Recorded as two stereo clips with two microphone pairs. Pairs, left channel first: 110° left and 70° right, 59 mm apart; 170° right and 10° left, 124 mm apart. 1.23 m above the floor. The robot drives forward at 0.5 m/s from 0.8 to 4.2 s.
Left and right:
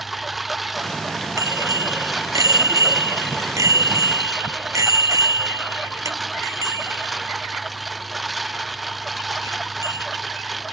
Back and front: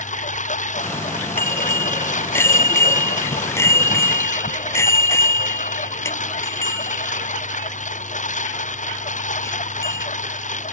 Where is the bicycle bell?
95° right; by 10.1 s 100° right.